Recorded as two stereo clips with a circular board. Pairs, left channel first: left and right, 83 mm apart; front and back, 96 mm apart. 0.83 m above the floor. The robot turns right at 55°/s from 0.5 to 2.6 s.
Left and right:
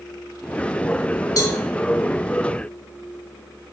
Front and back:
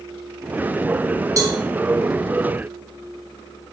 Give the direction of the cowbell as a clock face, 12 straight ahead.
8 o'clock.